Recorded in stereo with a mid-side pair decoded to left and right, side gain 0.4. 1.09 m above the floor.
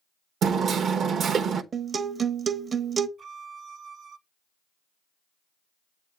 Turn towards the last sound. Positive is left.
turn(degrees=-60)